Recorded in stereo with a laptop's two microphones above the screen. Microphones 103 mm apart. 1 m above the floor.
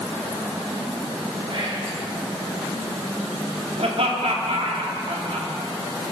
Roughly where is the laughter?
Right.